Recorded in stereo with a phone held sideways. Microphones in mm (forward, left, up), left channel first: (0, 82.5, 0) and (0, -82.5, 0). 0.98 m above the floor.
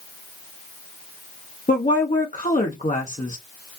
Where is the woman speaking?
50° left (ahead or behind), 1.0 m.